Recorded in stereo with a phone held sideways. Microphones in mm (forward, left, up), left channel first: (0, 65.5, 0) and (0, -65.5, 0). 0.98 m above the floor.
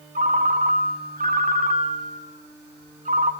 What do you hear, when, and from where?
0.1 s a ringtone: 80° right, 1.6 m